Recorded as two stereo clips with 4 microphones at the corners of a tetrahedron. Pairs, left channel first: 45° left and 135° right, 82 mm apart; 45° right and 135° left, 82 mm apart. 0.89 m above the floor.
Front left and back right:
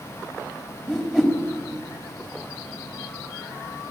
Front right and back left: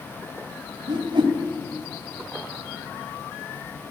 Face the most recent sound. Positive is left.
turn(degrees=140)